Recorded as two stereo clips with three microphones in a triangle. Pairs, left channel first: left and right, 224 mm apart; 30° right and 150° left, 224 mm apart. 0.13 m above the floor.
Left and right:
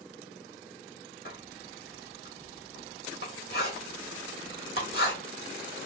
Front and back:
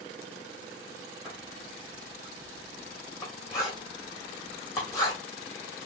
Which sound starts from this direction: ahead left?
Writing, at 1.2 s.